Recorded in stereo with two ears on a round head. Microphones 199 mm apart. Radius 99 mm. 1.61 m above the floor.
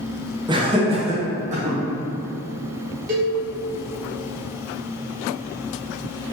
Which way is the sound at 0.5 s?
20° right (ahead or behind).